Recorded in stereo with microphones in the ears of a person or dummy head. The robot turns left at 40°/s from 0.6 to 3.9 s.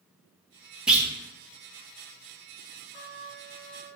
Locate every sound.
0.9 s a clunk: centre (ahead or behind), 0.7 m; by 1.1 s 10° right (ahead or behind), 0.7 m
2.9 s a trumpet: 40° left, 1.4 m; by 4.0 s 5° left, 1.4 m